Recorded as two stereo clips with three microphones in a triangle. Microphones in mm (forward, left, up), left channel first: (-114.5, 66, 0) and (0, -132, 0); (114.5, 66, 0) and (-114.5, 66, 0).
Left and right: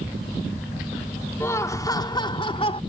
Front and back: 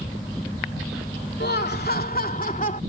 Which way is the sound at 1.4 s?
40° left.